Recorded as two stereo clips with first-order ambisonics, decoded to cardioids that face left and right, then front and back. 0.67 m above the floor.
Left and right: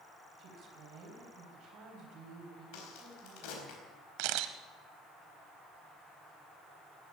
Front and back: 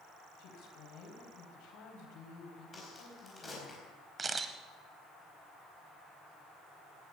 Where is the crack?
80° left, 4.5 m.